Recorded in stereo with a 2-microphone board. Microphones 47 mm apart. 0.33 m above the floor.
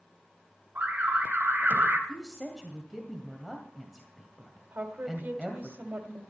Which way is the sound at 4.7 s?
40° right (ahead or behind).